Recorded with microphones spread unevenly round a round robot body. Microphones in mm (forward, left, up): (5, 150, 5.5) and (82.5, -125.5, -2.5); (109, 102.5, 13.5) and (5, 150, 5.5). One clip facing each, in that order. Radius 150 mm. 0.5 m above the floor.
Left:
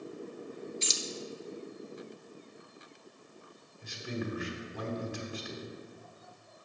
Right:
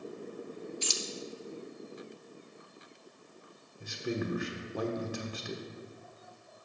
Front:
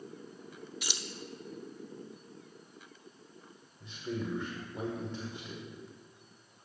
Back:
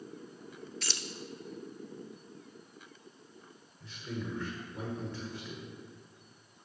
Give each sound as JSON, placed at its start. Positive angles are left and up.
{"t": 0.8, "sound": "keys jangling", "azimuth_deg": 50, "distance_m": 0.5}
{"t": 3.8, "sound": "a man speaking", "azimuth_deg": -100, "distance_m": 1.0}